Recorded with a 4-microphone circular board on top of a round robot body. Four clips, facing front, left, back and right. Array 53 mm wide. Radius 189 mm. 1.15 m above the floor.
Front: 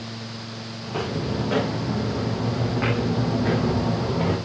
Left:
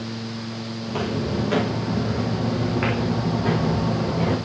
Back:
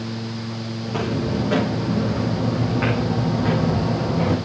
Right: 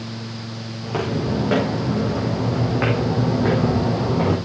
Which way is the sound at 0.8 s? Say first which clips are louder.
Right 3 dB, back 3 dB; 90° right.